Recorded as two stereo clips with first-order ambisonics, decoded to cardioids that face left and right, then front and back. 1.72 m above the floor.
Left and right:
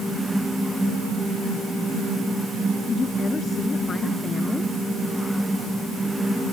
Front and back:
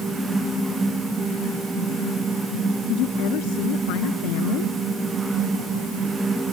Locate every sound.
2.9 s a woman speaking: 20° left; by 4.8 s 15° left